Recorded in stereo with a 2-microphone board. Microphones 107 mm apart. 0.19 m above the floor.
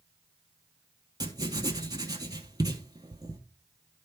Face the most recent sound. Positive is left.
turn(degrees=-35)  # may be behind; listen again after turning